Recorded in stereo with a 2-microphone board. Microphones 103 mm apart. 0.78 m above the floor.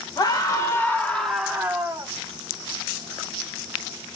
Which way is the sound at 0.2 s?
40° left (ahead or behind).